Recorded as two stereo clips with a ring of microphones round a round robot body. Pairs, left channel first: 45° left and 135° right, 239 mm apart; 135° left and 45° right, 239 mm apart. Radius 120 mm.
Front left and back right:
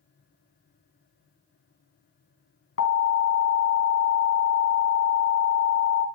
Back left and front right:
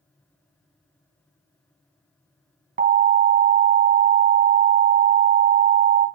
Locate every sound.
2.8 s an alarm: 5° left, 2.5 m